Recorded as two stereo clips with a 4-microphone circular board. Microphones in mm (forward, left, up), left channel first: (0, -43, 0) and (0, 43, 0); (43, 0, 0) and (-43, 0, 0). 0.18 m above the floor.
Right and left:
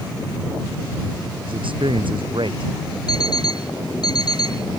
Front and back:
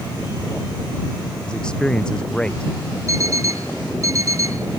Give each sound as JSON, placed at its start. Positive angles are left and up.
{"t": 1.5, "sound": "a man speaking", "azimuth_deg": 80}
{"t": 3.1, "sound": "an alarm clock", "azimuth_deg": -130}